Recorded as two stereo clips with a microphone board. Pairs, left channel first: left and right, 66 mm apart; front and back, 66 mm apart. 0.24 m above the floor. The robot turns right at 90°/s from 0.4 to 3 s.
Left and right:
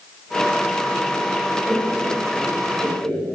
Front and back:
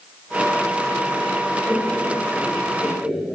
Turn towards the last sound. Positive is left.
turn(degrees=125)